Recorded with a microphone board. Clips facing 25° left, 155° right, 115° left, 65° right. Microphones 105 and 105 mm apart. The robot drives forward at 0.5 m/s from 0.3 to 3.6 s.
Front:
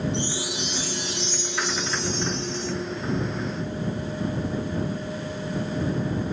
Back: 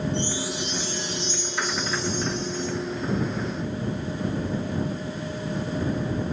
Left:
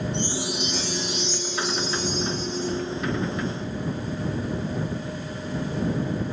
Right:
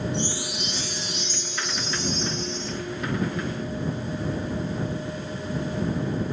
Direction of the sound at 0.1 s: 20° left.